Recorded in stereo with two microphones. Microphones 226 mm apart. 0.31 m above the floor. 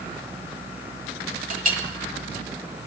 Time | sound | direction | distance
1.5 | a clink | 35° right (ahead or behind) | 1.2 m